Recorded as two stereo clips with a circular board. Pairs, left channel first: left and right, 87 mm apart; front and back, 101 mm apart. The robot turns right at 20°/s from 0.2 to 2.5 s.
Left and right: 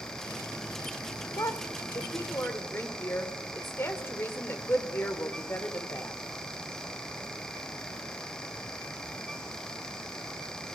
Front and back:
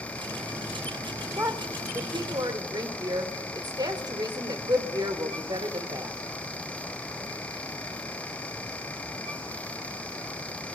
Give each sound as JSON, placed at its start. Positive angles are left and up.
{"t": 1.4, "sound": "a woman speaking", "azimuth_deg": 125, "distance_m": 2.0}